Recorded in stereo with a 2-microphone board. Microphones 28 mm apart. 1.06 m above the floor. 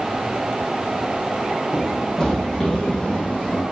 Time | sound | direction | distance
1.7 | running footsteps | 20° left (ahead or behind) | 2.5 m